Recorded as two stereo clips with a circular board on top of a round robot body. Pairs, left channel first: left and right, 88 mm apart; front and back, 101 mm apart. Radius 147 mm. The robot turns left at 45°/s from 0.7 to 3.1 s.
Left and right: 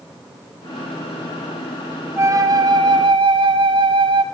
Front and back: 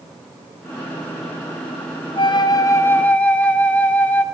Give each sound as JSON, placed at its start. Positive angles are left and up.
{"t": 2.2, "sound": "a flute", "azimuth_deg": -35, "distance_m": 1.9}